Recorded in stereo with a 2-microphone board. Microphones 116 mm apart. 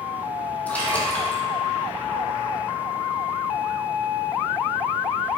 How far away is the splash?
About 1.9 m.